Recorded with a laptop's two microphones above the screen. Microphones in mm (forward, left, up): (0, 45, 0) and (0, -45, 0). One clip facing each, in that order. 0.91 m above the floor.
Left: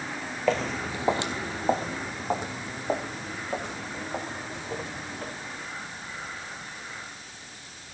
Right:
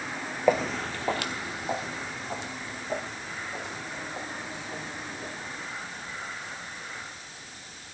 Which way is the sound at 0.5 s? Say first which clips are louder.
Right 2 dB; 15° right (ahead or behind).